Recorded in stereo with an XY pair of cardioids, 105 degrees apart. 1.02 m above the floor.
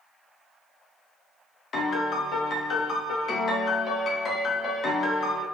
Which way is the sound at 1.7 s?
50° left.